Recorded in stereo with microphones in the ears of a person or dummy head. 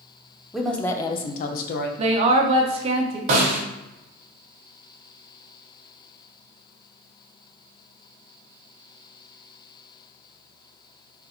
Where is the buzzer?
No buzzer in this recording.